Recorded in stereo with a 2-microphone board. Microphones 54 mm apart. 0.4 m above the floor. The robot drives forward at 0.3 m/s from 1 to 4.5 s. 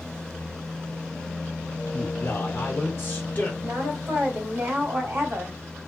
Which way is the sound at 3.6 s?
50° right (ahead or behind).